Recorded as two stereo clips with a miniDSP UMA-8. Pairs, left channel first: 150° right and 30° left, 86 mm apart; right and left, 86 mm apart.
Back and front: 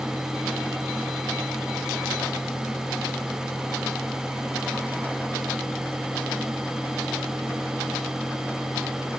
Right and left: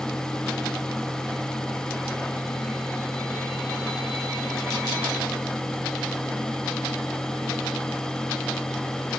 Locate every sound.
Only background noise.